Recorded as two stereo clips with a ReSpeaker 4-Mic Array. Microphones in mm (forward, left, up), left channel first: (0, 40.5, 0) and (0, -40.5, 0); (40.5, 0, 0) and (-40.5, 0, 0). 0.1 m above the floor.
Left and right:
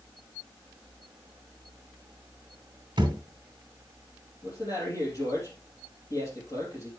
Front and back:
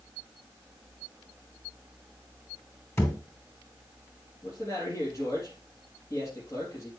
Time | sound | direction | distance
3.0 | a thud | 55° right | 2.0 m
4.4 | a man speaking | 50° left | 3.5 m